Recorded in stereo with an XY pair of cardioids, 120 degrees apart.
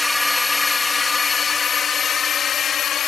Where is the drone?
10° left; by 3.1 s 50° left.